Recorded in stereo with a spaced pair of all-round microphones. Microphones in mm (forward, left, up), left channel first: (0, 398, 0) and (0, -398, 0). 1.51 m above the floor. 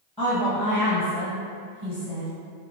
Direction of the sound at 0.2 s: 5° right (ahead or behind).